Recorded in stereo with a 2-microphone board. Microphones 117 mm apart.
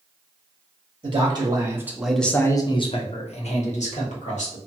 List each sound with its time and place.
1.0 s a man speaking: 40° right (ahead or behind), 0.9 m; by 4.6 s 80° left, 1.4 m